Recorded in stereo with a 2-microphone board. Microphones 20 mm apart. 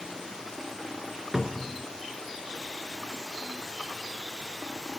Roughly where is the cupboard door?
Right.